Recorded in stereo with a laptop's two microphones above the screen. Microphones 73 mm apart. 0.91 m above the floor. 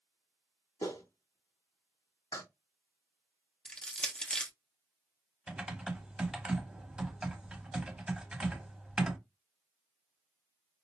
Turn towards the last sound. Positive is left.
turn(degrees=-15)  # may be behind; listen again after turning